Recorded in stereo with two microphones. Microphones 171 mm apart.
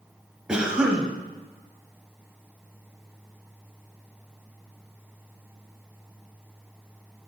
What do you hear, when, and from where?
0.5 s a cough: 5° right (ahead or behind), 0.9 m